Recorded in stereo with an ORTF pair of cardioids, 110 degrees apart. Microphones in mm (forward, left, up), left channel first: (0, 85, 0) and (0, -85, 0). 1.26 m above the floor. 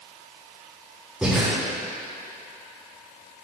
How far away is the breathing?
About 3.5 m.